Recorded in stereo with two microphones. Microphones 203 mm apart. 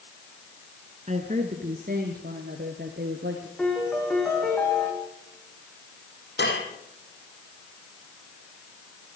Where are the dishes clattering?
65° left (ahead or behind), 4 m.